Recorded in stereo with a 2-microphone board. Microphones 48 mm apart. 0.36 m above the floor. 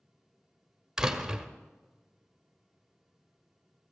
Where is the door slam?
15° right (ahead or behind), 1.0 m.